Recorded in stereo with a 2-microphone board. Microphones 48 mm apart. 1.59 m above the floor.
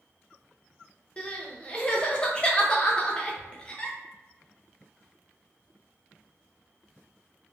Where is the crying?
20° left (ahead or behind), 0.5 m.